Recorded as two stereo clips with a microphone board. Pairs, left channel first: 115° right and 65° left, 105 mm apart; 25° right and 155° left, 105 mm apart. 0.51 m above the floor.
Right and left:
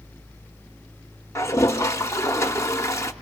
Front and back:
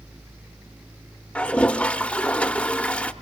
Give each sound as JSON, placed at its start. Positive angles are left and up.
{"t": 1.4, "sound": "a toilet flushing", "azimuth_deg": -90, "distance_m": 0.8}